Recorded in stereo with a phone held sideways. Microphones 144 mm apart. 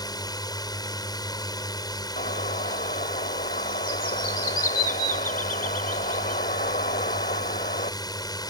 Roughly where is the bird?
Left.